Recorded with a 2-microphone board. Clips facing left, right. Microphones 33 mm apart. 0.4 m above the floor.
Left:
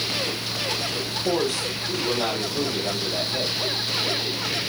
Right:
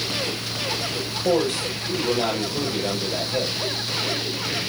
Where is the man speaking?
35° right (ahead or behind), 9 m.